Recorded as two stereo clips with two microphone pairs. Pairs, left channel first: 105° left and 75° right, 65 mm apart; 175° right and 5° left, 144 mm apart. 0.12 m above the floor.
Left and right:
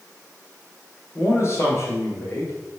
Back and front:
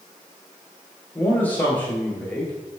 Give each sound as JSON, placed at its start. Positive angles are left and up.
{"t": 1.1, "sound": "a man speaking", "azimuth_deg": 110, "distance_m": 1.5}